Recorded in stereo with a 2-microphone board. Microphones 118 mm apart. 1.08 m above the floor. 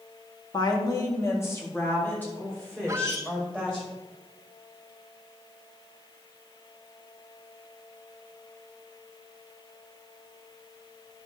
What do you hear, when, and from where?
0.5 s a woman speaking: 40° left (ahead or behind), 2 m; by 3.9 s 10° left (ahead or behind), 6 m
2.9 s a squeak: 25° right (ahead or behind), 0.6 m